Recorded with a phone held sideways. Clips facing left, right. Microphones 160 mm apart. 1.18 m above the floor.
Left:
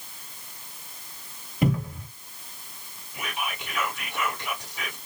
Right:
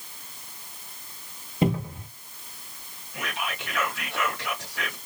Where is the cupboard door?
25° right (ahead or behind), 1.0 m.